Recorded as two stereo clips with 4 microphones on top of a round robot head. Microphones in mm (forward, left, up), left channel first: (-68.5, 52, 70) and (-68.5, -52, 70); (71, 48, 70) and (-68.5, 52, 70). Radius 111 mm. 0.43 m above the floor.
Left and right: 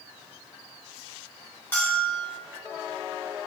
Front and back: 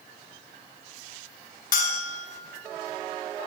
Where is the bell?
15° left, 2 m.